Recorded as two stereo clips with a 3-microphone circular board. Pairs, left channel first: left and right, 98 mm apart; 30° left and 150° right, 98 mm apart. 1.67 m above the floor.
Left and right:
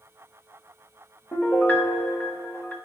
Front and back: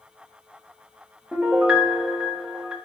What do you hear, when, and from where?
1.3 s a piano: 140° left, 1.1 m